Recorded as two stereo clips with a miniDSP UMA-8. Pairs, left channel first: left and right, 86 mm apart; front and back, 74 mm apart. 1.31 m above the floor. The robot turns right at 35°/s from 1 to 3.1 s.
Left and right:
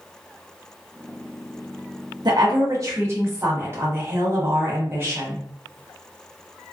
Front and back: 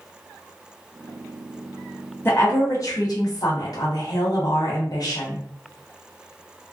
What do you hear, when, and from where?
2.2 s a woman speaking: 60° right, 1.0 m; by 5.4 s 30° right, 1.0 m